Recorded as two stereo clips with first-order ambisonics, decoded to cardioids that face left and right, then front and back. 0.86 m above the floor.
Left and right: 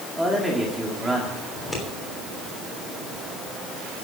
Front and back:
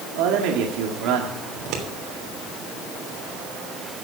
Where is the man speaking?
175° right, 1.7 m.